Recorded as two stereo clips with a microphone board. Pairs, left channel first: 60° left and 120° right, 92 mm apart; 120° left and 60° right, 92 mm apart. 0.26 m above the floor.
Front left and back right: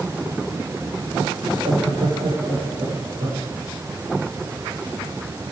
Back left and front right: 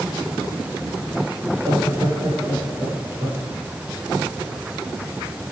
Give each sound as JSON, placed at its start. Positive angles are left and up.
{"t": 1.4, "sound": "laughter", "azimuth_deg": -115, "distance_m": 7.5}